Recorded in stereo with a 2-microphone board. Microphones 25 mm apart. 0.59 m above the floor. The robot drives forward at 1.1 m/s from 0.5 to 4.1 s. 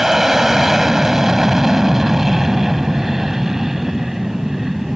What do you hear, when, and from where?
0.0 s an aircraft: 10° right (ahead or behind)